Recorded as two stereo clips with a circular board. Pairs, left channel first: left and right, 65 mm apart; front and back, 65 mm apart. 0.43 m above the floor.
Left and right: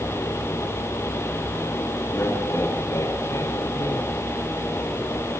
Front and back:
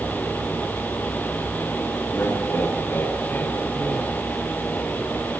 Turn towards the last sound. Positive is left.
turn(degrees=65)